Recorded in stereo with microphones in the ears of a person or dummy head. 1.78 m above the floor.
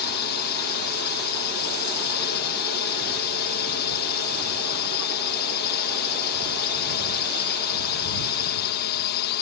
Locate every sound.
0.0 s a drone: 60° left (ahead or behind)